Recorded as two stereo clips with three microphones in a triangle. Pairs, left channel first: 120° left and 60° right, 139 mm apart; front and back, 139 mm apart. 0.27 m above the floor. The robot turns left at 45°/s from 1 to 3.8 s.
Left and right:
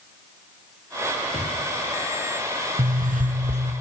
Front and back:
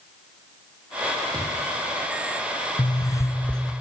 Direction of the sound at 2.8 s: 50° right.